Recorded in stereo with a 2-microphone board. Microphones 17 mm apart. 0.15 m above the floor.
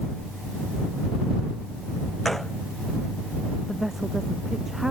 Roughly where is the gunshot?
Centre.